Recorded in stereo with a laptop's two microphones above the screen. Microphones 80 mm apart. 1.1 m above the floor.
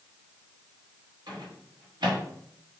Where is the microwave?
65° right (ahead or behind), 1.4 m.